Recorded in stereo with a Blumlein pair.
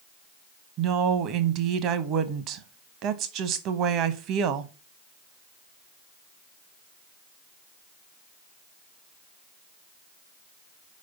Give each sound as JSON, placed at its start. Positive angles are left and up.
{"t": 0.8, "sound": "a woman speaking", "azimuth_deg": -35, "distance_m": 0.9}